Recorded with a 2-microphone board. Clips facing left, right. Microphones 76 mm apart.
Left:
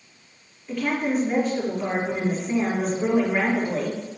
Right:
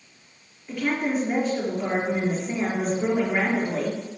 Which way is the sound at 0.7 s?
5° right (ahead or behind).